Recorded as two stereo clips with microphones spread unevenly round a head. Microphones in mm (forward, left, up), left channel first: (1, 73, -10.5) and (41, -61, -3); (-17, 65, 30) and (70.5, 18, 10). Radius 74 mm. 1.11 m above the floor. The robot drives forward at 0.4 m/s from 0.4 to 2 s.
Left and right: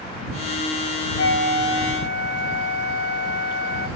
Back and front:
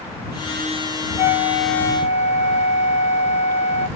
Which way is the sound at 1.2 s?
115° left.